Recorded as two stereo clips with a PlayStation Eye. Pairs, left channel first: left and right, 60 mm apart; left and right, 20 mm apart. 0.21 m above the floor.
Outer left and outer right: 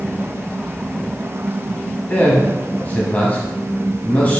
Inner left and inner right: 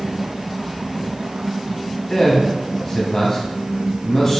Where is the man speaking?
25° left (ahead or behind), 1.0 m.